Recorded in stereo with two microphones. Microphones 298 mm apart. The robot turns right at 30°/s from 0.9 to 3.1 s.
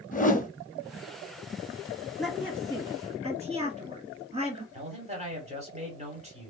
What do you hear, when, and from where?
0.1 s a whoosh: 25° left (ahead or behind), 0.6 m
2.2 s a woman speaking: centre (ahead or behind), 1.6 m; by 4.6 s 20° right (ahead or behind), 1.6 m
4.7 s a man speaking: 20° right (ahead or behind), 1.7 m